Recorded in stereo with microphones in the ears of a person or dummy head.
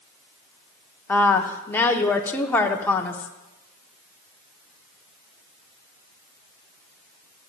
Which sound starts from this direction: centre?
A woman speaking, at 1.1 s.